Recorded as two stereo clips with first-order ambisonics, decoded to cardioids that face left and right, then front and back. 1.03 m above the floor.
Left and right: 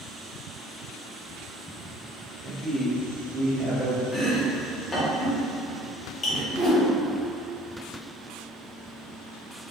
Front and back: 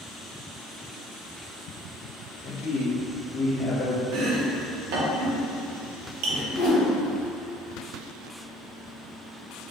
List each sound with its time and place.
2.4 s a man speaking: 35° right, 0.9 m
4.1 s chopping: 165° left, 0.6 m
6.5 s a whoosh: 5° right, 1.3 m